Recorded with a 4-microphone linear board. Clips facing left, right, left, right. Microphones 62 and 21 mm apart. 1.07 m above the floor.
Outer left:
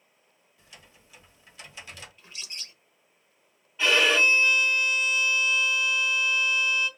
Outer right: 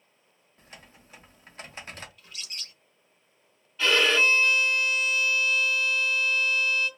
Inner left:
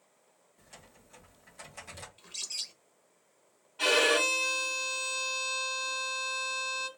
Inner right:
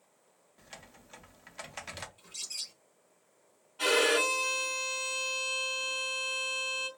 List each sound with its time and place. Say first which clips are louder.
0.6 s typing on a keyboard: outer right 3 dB, inner right 4 dB; 45° right (ahead or behind), 0.6 m
2.2 s a bird: even, inner left 6 dB; 25° left (ahead or behind), 0.7 m
3.8 s a violin: outer left 1 dB, inner left 1 dB; 15° left (ahead or behind), 0.9 m